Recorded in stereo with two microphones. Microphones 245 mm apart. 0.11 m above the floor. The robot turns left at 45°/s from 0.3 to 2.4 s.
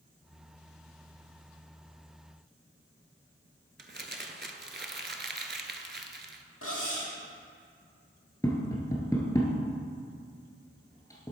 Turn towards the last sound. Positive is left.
turn(degrees=15)  # may be behind; listen again after turning